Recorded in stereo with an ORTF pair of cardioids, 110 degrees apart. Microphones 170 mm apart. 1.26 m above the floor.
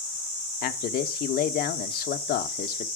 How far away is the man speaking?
About 0.7 m.